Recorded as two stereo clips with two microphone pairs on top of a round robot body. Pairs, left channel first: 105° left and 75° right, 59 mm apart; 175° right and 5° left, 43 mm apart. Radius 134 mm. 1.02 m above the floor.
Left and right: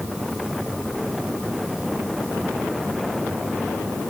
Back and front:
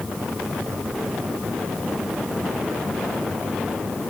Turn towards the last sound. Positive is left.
No sound to turn to.